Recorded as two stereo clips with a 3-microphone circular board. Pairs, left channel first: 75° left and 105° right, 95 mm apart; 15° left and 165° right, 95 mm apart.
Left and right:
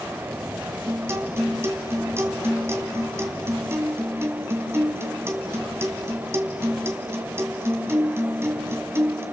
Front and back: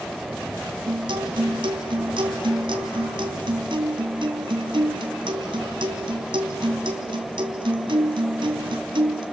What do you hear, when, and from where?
0.9 s a guitar: 165° right, 2 m